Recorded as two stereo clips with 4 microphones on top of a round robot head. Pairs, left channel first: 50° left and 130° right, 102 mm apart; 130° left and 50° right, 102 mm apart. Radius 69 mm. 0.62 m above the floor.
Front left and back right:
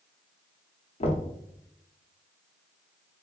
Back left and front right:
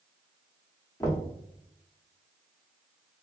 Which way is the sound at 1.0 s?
70° left.